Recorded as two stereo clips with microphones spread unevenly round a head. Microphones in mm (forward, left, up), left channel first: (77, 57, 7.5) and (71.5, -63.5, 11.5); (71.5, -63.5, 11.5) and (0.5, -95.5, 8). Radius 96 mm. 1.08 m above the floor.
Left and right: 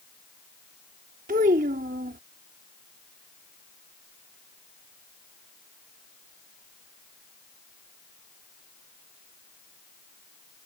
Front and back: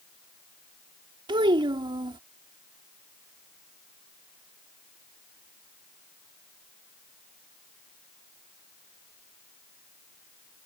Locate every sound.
1.3 s a child speaking: 135° right